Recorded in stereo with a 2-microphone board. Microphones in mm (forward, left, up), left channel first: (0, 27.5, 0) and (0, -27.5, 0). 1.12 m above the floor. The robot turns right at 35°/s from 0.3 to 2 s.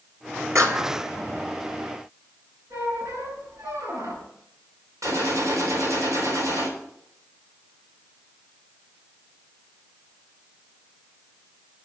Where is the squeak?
75° right (ahead or behind), 6.5 m.